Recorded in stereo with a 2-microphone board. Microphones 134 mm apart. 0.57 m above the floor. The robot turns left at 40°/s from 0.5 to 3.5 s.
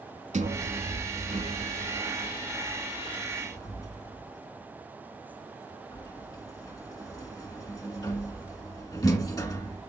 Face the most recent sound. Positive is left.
turn(degrees=30)  # may be behind; listen again after turning